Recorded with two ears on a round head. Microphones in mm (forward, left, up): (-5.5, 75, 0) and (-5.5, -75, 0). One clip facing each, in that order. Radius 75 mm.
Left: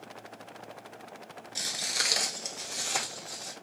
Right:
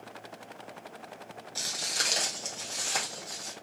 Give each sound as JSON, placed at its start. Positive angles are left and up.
{"t": 1.6, "sound": "footsteps", "side_deg": 20, "distance_m": 0.8}